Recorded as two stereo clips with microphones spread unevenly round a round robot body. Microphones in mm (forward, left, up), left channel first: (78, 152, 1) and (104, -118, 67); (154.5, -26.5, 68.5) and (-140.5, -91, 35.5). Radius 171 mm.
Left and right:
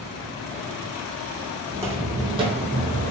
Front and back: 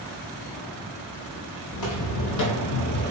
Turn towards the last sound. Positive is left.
turn(degrees=-45)